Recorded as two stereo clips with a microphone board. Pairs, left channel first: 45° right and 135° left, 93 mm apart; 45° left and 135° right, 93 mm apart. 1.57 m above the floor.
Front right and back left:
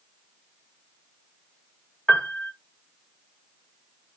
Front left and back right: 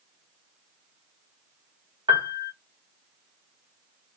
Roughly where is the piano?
Behind right.